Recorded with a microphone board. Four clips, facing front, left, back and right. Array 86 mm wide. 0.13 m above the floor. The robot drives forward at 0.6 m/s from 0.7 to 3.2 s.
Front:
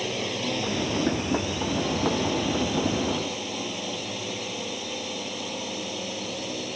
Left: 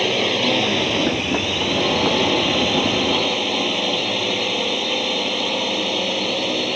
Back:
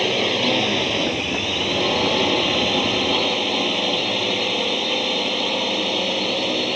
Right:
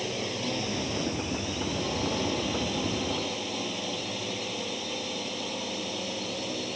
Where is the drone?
125° left; by 6.8 s 130° left.